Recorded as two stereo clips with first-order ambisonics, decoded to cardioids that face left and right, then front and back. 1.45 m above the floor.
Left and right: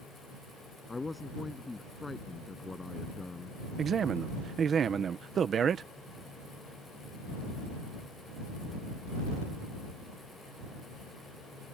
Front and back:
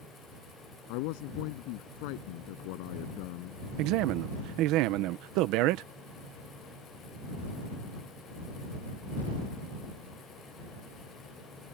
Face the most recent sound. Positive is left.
turn(degrees=-155)